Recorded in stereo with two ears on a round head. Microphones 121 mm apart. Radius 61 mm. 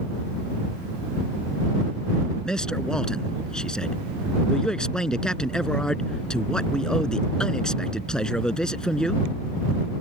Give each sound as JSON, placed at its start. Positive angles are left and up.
{"t": 2.5, "sound": "a man speaking", "side_deg": 5}